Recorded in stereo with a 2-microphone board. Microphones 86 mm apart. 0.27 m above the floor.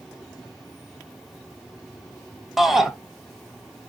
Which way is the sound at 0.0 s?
Centre (ahead or behind).